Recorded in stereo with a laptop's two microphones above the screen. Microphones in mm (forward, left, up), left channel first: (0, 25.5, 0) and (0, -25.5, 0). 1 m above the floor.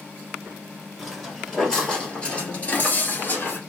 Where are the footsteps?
5° left (ahead or behind), 1.6 m; by 3.6 s 40° left (ahead or behind), 1.2 m.